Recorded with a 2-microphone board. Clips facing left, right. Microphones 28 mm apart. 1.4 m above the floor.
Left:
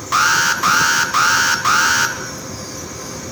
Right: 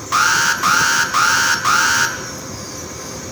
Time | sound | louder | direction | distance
0.1 | an alarm | even | 5° left (ahead or behind) | 2 m